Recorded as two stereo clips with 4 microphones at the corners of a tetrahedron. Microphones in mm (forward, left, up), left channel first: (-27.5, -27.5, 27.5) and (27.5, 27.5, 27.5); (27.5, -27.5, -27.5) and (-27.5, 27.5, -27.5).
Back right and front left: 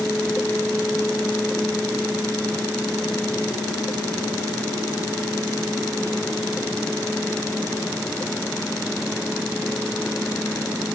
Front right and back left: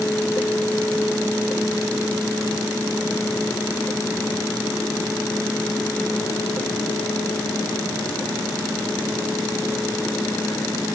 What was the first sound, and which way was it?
Only background noise.